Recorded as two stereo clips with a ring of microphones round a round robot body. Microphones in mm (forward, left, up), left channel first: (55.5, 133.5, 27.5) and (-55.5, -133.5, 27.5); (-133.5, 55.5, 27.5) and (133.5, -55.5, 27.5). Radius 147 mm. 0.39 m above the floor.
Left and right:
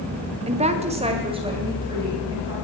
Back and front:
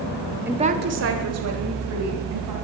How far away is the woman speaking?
About 0.8 m.